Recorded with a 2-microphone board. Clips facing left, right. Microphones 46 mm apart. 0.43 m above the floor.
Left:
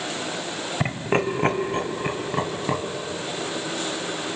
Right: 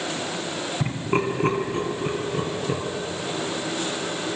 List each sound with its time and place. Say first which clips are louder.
0.8 s laughter: left 2 dB; 60° left (ahead or behind), 2.5 m; by 2.8 s 70° left (ahead or behind), 4.5 m